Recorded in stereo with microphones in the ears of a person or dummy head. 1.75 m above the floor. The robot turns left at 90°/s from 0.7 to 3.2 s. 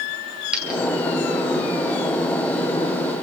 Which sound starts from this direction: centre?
A dropped coin, at 0.5 s.